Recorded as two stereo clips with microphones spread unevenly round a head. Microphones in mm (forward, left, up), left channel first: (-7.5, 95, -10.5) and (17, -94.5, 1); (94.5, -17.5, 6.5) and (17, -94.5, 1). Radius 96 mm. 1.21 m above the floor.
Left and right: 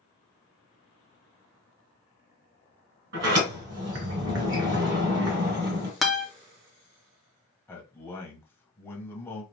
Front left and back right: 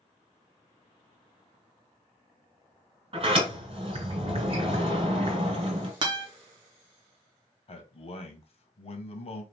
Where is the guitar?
175° right, 0.7 m.